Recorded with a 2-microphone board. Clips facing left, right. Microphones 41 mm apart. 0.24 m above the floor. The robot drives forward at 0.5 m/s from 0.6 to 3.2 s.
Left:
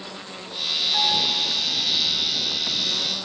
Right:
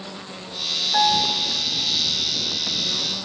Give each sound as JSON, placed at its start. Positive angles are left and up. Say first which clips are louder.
{"t": 0.9, "sound": "a piano", "louder": "right 5 dB", "side_deg": -40, "distance_m": 2.5}